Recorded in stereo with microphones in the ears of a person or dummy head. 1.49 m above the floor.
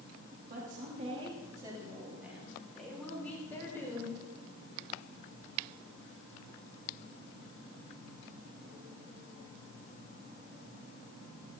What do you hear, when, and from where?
0.5 s a woman speaking: 50° right (ahead or behind), 2.5 m; by 4.2 s 15° left (ahead or behind), 6 m